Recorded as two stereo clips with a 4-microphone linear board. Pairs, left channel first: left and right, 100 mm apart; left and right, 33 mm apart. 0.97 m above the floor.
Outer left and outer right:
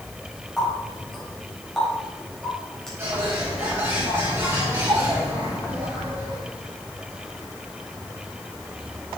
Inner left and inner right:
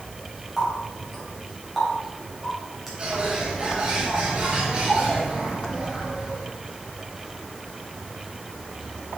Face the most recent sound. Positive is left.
turn(degrees=-30)  # may be behind; listen again after turning